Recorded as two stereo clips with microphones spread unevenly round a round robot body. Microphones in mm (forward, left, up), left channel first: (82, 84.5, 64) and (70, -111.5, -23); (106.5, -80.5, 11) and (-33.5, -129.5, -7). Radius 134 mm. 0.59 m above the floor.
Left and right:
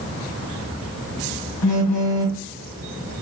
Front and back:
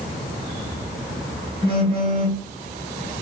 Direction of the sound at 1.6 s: 100° left.